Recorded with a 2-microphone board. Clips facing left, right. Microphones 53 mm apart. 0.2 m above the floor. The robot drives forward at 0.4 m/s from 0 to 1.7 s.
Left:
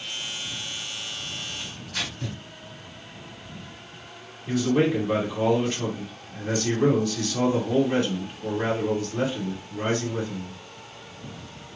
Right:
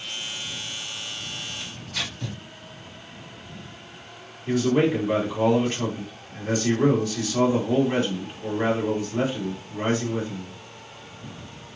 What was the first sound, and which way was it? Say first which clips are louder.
Tearing paper: even; 25° left (ahead or behind).